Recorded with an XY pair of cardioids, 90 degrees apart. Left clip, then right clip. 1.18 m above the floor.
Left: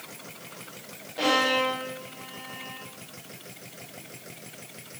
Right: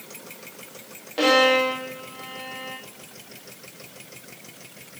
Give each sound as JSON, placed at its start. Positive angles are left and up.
{"t": 1.2, "sound": "a violin", "azimuth_deg": -70, "distance_m": 1.9}